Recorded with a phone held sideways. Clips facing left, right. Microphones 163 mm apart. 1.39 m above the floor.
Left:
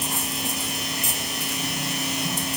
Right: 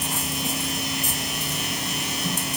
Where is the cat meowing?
No cat meowing in this recording.